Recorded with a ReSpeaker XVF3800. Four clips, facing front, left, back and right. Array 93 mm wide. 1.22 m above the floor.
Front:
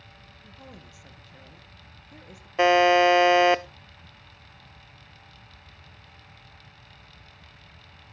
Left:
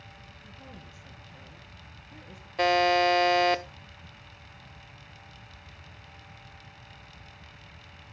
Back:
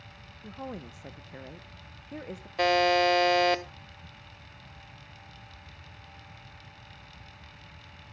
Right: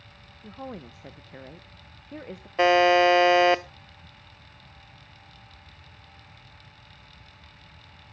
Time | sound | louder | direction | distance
0.4 | a woman speaking | right 12 dB, back 9 dB | 125° right | 1.0 m
2.6 | a buzzer | right 5 dB, front 6 dB | 40° right | 0.5 m